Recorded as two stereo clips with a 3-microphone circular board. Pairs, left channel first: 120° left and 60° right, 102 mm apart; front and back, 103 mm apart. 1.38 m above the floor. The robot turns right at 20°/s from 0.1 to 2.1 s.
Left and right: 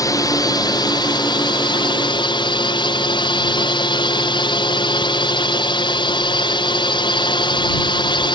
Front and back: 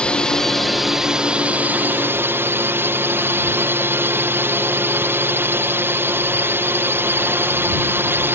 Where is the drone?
80° left; by 8.3 s 120° left.